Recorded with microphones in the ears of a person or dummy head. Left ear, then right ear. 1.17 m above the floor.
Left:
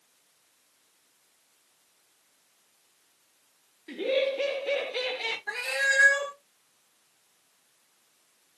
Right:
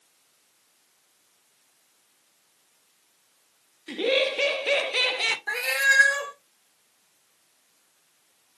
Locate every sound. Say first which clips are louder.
3.9 s laughter: right 3 dB; 25° right (ahead or behind), 0.9 m; by 5.4 s 55° right (ahead or behind), 1.0 m
5.5 s a cat meowing: right 4 dB; 20° right (ahead or behind), 0.7 m